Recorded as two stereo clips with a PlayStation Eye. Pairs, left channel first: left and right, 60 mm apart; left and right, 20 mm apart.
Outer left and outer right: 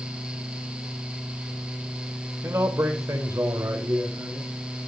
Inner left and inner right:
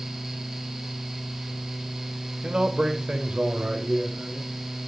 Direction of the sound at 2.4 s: 50° right (ahead or behind).